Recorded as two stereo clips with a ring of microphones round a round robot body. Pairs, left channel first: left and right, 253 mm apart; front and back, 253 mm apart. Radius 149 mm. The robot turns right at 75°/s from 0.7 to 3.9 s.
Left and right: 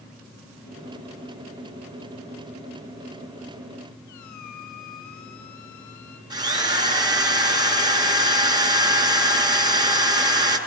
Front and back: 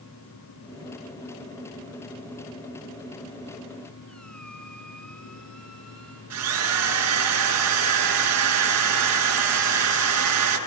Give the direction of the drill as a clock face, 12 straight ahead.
5 o'clock.